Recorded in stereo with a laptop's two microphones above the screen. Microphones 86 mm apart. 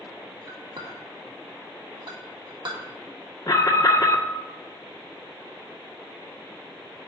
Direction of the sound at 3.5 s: 45° left (ahead or behind).